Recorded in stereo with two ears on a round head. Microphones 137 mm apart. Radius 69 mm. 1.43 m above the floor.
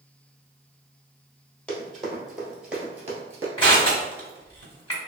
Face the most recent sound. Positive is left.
turn(degrees=35)  # may be behind; listen again after turning